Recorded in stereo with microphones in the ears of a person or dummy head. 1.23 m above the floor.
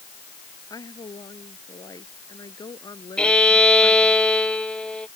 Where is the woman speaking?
25° left (ahead or behind).